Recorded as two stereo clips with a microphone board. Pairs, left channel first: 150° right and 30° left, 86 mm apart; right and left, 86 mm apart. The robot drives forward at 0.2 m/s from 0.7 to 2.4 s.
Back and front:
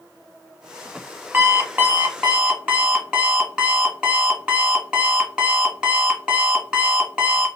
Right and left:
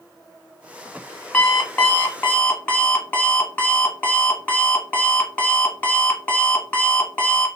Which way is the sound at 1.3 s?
30° right.